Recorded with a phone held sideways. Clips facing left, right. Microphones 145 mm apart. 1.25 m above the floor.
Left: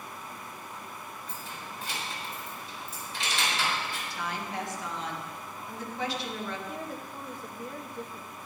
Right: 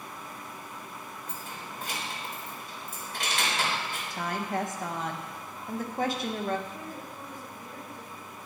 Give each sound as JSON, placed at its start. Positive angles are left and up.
{"t": 1.3, "sound": "keys jangling", "side_deg": -55, "distance_m": 3.0}
{"t": 4.1, "sound": "a woman speaking", "side_deg": -50, "distance_m": 1.5}
{"t": 6.7, "sound": "a woman speaking", "side_deg": 60, "distance_m": 1.8}